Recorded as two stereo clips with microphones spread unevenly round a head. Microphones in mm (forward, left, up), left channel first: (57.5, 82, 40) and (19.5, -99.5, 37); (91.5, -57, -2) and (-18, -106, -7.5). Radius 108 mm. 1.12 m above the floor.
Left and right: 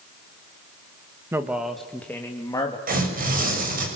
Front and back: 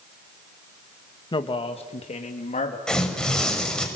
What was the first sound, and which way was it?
A man speaking, 25° right.